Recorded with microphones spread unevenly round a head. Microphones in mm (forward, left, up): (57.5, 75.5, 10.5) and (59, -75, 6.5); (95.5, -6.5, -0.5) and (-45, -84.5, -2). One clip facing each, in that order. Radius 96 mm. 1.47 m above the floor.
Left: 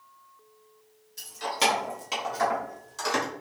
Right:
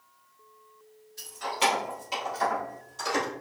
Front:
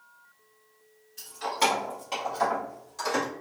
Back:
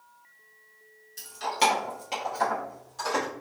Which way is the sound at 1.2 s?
160° left.